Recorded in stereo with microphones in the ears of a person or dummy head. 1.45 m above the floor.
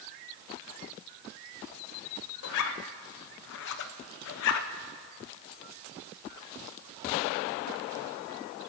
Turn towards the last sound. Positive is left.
turn(degrees=70)  # may be behind; listen again after turning